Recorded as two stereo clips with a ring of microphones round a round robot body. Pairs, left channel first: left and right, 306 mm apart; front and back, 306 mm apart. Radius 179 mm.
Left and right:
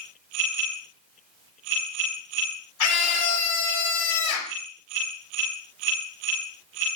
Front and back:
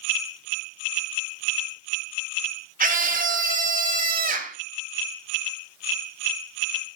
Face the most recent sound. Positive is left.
turn(degrees=120)